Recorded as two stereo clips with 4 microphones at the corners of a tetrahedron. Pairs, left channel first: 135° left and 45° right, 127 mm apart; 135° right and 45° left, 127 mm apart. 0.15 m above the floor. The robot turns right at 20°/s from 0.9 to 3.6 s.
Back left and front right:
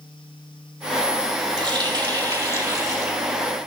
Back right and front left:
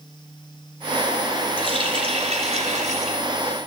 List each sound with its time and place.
1.6 s a running tap: straight ahead, 2 m; by 3.2 s 30° left, 2 m